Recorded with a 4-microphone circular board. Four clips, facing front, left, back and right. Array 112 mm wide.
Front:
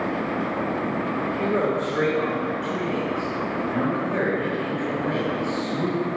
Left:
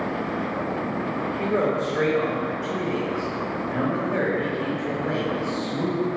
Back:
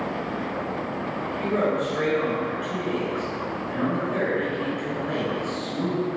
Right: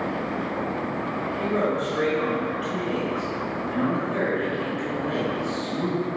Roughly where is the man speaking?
Ahead left.